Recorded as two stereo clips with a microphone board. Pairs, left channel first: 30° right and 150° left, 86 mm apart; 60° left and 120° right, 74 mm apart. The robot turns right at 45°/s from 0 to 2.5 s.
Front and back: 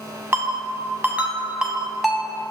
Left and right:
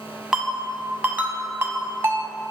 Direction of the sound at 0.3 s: 160° left.